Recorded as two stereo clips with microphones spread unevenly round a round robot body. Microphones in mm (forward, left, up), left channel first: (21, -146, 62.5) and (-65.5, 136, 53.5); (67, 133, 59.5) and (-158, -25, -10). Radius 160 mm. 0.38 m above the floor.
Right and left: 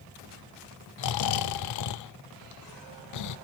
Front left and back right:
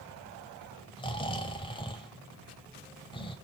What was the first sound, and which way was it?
Snoring, 45° right.